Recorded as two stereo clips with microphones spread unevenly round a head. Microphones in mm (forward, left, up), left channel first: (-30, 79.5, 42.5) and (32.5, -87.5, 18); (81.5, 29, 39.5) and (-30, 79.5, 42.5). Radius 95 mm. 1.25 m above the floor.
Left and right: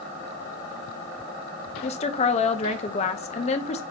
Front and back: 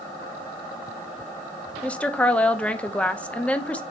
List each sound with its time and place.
1.8 s a woman speaking: 55° left, 0.7 m